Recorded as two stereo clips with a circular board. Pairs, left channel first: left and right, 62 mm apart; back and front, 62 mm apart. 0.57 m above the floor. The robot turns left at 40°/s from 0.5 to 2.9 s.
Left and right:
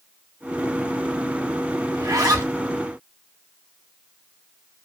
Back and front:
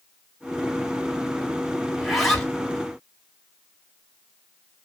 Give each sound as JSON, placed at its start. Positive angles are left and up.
{"t": 1.9, "sound": "a zipper", "azimuth_deg": -80, "distance_m": 1.1}